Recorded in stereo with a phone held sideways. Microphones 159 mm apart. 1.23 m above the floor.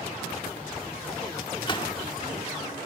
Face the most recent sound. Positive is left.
turn(degrees=30)  # may be behind; listen again after turning